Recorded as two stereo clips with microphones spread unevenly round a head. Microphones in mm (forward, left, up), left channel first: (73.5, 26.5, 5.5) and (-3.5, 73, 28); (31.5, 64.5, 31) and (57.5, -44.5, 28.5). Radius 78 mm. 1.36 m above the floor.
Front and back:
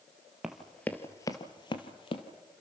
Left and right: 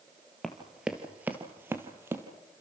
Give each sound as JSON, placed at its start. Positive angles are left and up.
{"t": 0.4, "sound": "running footsteps", "azimuth_deg": -175, "distance_m": 1.4}